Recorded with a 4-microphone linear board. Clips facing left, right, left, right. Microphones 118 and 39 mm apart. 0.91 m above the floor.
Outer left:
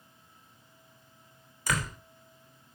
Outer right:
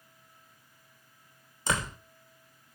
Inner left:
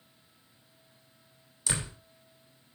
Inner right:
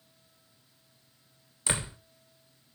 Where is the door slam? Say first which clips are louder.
Outer right 1 dB, inner right 2 dB; 25° right (ahead or behind), 3 m.